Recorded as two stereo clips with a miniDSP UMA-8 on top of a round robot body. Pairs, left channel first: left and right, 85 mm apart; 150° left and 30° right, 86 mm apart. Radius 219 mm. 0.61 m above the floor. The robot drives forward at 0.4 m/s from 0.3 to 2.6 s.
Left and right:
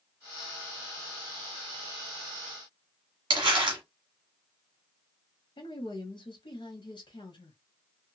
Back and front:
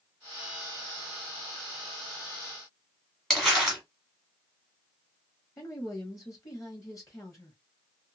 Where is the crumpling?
120° right, 0.9 m.